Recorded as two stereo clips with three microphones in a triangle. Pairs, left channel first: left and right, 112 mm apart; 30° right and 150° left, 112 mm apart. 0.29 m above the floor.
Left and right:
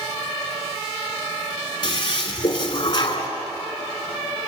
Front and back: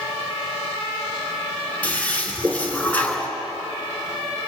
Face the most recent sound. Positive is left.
turn(degrees=45)